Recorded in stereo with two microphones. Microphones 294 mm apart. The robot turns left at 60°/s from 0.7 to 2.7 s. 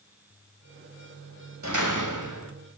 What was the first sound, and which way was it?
A door slam, 65° right.